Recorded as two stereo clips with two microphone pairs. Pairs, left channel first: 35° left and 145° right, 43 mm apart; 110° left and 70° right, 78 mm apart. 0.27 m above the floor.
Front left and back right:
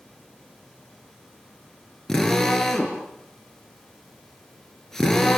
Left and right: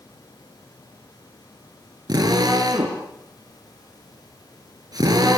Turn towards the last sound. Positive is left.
turn(degrees=-40)